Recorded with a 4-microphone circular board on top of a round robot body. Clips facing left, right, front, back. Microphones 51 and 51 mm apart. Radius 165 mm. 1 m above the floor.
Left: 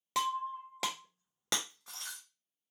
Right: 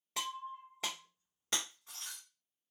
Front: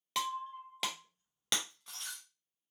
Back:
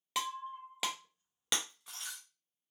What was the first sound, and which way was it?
Breaking glass, 95° left.